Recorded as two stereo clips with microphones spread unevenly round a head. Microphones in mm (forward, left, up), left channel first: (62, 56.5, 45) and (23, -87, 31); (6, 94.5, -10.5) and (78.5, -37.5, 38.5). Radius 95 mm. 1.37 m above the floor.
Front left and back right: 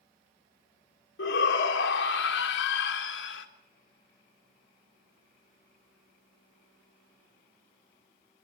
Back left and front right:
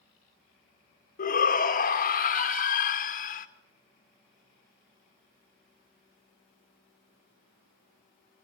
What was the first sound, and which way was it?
A shout, 85° left.